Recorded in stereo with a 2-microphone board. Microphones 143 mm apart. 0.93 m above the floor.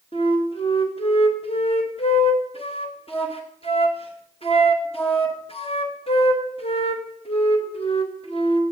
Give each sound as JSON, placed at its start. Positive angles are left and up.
{"t": 0.1, "sound": "a flute", "side_deg": 45, "distance_m": 1.5}